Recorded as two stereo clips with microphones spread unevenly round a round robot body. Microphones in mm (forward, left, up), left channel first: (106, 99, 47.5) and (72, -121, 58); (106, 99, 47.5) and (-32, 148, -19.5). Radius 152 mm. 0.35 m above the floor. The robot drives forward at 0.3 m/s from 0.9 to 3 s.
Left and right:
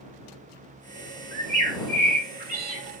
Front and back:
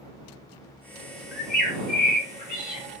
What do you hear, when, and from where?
1.3 s a bird: 55° right, 1.1 m; by 2.9 s 100° right, 1.0 m